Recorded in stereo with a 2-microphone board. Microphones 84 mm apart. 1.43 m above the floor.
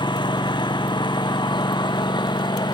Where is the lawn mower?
65° left (ahead or behind).